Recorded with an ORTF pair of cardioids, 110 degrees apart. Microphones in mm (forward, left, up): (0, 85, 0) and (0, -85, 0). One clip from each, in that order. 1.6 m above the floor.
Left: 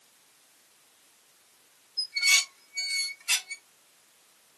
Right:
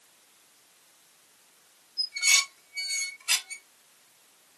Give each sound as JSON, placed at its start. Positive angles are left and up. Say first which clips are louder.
{"t": 2.0, "sound": "dishes clattering", "louder": "even", "azimuth_deg": 0, "distance_m": 2.5}